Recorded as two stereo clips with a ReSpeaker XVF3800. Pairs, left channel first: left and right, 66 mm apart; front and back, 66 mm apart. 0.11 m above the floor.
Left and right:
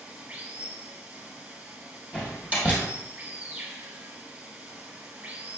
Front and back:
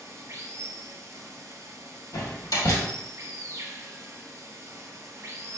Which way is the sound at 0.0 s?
145° right.